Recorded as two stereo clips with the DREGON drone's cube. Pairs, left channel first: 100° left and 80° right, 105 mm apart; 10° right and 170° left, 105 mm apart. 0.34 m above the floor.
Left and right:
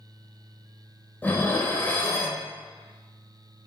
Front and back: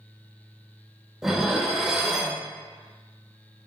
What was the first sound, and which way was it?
Dishes clattering, 90° left.